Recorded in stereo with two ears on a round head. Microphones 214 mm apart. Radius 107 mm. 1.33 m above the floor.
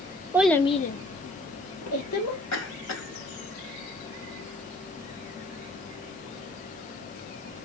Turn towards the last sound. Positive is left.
turn(degrees=80)